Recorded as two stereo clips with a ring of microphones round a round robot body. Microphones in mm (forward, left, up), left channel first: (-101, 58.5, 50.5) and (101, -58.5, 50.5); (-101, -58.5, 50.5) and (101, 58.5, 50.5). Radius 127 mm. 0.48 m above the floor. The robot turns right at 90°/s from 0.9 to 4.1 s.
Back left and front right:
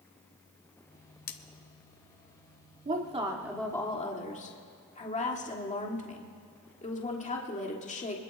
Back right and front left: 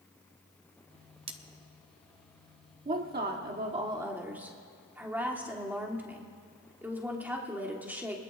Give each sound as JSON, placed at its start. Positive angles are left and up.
{"t": 1.3, "sound": "cutlery clinking", "azimuth_deg": 95, "distance_m": 1.0}
{"t": 2.9, "sound": "a woman speaking", "azimuth_deg": -5, "distance_m": 1.6}